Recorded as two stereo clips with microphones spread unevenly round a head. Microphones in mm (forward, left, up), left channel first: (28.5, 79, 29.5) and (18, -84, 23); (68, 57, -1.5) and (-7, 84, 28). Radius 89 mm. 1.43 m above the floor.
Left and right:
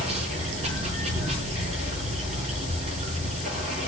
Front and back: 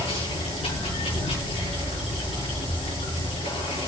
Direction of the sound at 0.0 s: 45° right.